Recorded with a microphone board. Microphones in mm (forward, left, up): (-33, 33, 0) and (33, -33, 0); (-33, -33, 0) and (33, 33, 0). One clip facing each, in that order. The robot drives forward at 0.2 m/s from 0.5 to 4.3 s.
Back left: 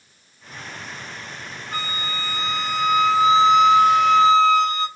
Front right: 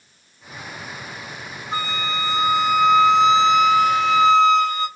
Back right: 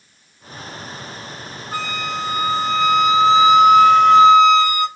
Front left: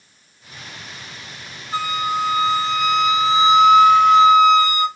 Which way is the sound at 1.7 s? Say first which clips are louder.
Front right 4 dB, front left 4 dB; 110° right.